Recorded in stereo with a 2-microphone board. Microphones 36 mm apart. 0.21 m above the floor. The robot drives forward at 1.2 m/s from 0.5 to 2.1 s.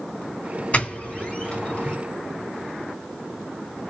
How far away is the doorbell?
About 2.5 m.